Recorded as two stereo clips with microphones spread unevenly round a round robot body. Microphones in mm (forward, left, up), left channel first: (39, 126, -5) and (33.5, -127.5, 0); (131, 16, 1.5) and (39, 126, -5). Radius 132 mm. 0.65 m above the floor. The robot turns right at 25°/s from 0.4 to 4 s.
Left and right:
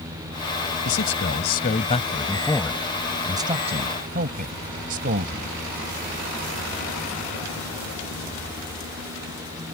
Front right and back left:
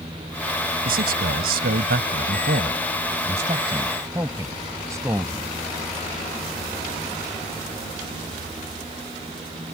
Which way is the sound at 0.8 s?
130° left.